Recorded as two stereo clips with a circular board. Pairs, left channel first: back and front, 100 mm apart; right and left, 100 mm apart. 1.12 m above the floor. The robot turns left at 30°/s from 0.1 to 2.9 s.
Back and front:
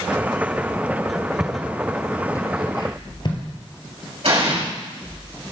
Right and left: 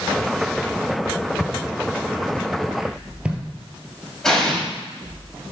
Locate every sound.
1.4 s footsteps: 85° right, 1.2 m; by 3.4 s 165° left, 1.7 m
4.2 s an explosion: 5° right, 3 m